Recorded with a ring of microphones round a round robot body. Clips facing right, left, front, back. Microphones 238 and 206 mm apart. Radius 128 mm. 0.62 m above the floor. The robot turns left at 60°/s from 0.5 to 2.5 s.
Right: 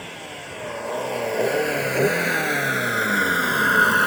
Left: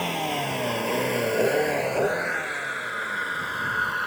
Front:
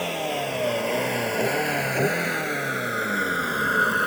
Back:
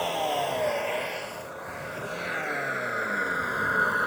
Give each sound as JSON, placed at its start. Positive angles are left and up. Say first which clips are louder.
{"t": 0.0, "sound": "a vehicle", "louder": "left 9 dB, front 1 dB", "azimuth_deg": 65}